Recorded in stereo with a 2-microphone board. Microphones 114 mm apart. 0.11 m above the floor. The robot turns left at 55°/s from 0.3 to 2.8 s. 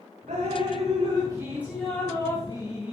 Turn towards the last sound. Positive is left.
turn(degrees=125)